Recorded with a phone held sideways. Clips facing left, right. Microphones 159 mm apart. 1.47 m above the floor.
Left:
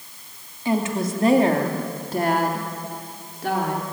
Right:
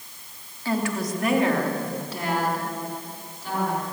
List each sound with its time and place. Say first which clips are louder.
0.7 s a woman speaking: left 3 dB; 20° left (ahead or behind), 3 m; by 3.8 s 75° left (ahead or behind), 4.5 m